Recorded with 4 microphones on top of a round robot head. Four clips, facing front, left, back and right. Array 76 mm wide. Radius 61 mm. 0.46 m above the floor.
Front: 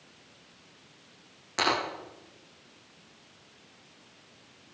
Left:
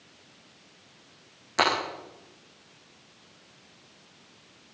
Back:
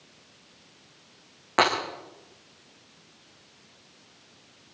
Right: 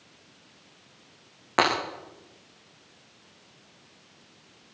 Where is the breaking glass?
130° right, 9.5 m.